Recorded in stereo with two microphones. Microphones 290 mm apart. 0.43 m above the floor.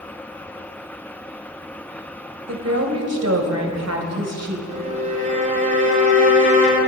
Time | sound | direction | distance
2.5 | a woman speaking | 60° right (ahead or behind) | 1.9 m
4.7 | a violin | 25° right (ahead or behind) | 2.0 m